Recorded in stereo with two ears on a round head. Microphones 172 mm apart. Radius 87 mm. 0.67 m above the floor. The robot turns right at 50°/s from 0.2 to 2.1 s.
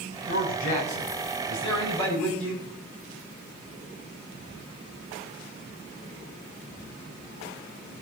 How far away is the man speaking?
About 5.5 m.